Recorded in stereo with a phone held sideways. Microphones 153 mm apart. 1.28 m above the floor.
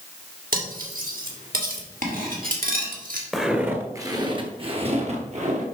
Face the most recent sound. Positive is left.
turn(degrees=-55)  # may be behind; listen again after turning